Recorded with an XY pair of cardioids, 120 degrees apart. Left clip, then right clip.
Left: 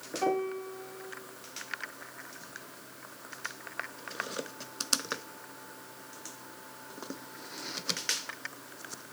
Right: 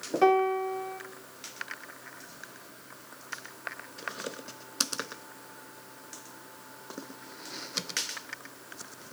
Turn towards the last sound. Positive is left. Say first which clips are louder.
# right 8 dB
turn(degrees=-55)